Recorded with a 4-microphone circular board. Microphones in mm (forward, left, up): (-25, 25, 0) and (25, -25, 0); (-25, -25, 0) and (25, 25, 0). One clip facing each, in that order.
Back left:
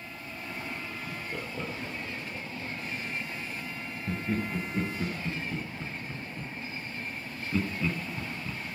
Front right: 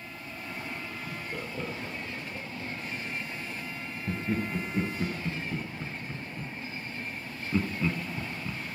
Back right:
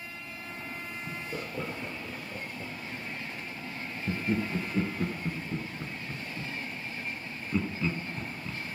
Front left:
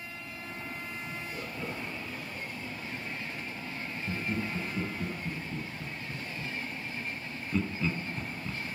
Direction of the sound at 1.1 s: 135° right.